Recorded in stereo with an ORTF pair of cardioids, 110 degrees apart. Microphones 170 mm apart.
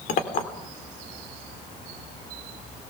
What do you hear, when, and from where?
0.1 s a clink: 55° left, 3 m